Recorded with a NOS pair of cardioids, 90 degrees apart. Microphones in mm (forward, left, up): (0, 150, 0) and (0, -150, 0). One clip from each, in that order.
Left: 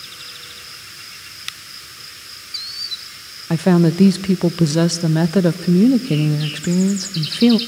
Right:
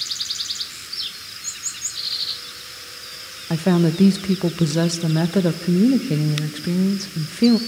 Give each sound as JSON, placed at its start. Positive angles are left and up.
{"t": 3.5, "sound": "a woman speaking", "azimuth_deg": 15, "distance_m": 0.7}